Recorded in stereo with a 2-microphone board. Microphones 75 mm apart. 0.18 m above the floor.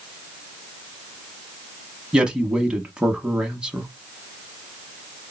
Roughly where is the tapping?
No tapping in this recording.